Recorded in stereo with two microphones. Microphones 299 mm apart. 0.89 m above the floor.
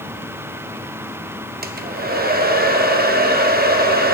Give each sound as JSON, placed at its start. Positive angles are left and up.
{"t": 1.6, "sound": "a hair dryer", "side_deg": -30, "distance_m": 0.5}